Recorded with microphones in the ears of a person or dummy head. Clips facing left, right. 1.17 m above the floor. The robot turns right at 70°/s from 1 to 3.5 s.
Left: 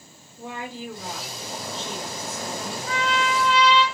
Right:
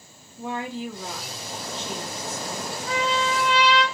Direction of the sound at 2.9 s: 30° left.